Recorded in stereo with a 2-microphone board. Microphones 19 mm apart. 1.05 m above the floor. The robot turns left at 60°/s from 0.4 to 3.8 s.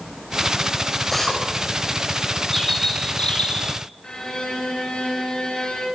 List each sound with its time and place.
1.1 s a drill: 5° left (ahead or behind), 6 m; by 1.4 s 20° left (ahead or behind), 6 m
2.5 s a bird: 175° left, 6.5 m; by 3.8 s 100° left, 6.5 m
4.0 s a violin: 50° left (ahead or behind), 7.5 m